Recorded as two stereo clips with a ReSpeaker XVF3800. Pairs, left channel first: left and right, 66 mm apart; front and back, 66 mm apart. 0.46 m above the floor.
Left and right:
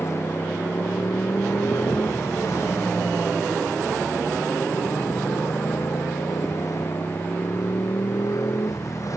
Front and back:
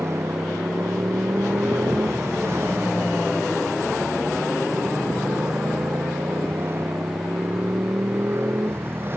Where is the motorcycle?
135° left; by 9.2 s 125° left.